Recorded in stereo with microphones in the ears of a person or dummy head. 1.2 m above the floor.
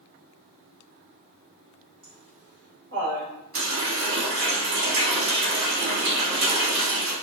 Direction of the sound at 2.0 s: 30° right (ahead or behind).